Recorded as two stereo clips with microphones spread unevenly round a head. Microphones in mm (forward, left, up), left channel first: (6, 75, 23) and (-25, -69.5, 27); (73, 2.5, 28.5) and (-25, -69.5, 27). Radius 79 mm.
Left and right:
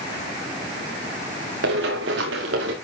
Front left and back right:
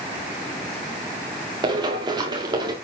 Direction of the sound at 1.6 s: 90° right.